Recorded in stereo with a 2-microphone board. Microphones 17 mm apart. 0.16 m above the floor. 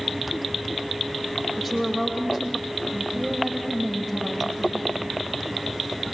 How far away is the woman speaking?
About 6.5 m.